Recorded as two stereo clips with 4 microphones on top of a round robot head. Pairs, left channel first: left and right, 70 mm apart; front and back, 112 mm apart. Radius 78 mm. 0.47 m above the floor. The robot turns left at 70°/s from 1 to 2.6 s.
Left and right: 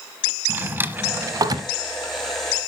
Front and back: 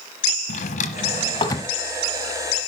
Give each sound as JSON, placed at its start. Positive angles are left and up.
{"t": 0.5, "sound": "a drawer", "azimuth_deg": -30, "distance_m": 1.1}